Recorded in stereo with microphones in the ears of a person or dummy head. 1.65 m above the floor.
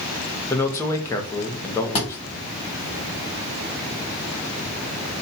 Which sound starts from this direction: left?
A thud, at 1.9 s.